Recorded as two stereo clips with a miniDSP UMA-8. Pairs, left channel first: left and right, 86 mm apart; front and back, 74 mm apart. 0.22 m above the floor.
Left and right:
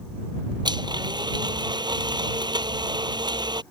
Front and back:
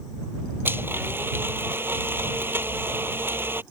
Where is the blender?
120° right.